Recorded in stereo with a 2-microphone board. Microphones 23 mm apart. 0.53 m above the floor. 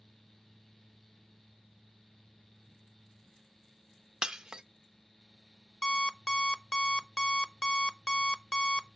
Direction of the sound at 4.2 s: 30° right (ahead or behind).